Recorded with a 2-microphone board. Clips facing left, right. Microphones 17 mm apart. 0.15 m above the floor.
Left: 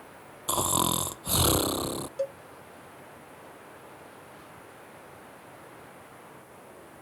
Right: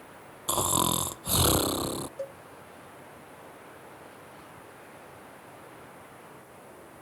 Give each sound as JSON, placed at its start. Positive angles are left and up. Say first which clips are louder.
{"t": 0.5, "sound": "snoring", "louder": "even", "side_deg": 5}
{"t": 2.2, "sound": "a cowbell", "louder": "left 6 dB", "side_deg": 35}